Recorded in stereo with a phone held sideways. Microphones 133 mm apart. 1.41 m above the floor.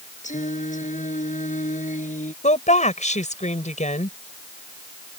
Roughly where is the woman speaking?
Left.